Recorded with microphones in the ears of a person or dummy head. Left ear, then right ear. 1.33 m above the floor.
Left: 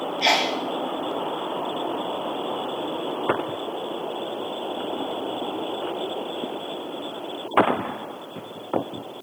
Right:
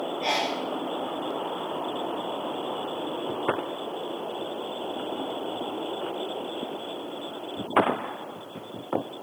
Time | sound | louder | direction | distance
0.2 | a sneeze | left 7 dB | 55° left (ahead or behind) | 0.8 m